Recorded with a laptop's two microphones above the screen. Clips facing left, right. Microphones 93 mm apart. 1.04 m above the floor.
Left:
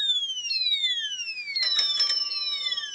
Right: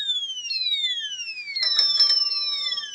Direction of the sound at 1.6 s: 15° right (ahead or behind).